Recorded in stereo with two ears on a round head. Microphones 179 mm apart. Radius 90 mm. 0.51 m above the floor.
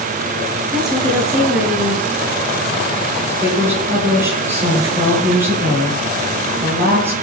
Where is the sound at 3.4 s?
15° right (ahead or behind), 9.5 m.